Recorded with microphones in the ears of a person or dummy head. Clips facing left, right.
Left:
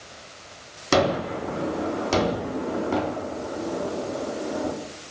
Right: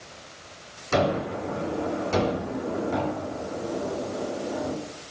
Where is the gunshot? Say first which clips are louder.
Left 2 dB; 75° left (ahead or behind), 3.5 m.